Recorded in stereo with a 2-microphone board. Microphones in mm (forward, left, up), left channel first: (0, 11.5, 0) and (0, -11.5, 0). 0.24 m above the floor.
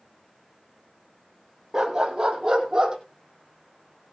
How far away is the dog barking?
About 2.5 m.